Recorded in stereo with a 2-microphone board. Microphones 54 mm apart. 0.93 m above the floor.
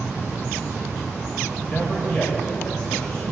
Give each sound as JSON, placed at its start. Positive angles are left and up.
{"t": 1.6, "sound": "a man speaking", "side_deg": 10, "distance_m": 4.5}